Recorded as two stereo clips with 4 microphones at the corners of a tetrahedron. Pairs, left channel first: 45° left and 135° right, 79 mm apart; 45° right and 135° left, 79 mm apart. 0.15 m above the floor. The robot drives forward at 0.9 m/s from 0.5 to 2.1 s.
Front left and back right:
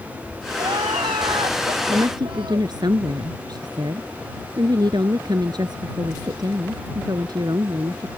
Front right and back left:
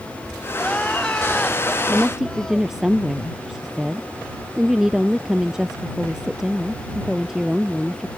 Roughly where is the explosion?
No explosion in this recording.